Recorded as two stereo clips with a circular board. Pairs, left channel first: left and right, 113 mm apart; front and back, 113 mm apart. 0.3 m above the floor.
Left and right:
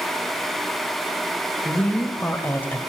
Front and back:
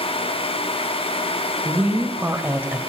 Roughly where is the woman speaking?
Behind left.